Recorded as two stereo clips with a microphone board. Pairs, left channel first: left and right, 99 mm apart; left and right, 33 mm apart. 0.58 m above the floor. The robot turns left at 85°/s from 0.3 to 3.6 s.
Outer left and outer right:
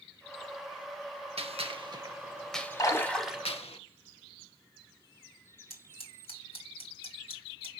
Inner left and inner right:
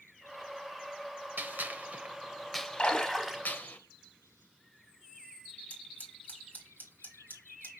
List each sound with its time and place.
1.4 s a gunshot: 75° right (ahead or behind), 0.6 m; by 3.8 s 75° left (ahead or behind), 0.6 m
2.8 s a splash: 40° left, 0.9 m; by 3.4 s 15° right, 0.9 m
5.7 s scissors: 65° left (ahead or behind), 1.8 m